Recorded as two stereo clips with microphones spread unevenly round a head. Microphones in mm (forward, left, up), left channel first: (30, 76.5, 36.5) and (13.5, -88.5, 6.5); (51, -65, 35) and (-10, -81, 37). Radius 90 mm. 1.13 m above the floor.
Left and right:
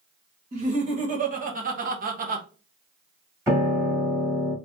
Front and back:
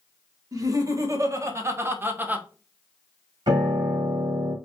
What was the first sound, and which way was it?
Laughter, 140° right.